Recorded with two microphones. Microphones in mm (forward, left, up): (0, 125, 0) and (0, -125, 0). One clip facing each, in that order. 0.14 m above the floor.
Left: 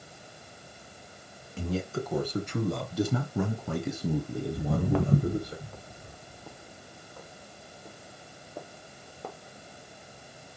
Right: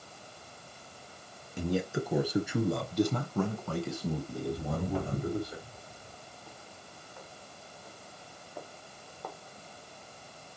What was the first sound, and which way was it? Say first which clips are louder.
A man speaking: right 1 dB; 15° right (ahead or behind).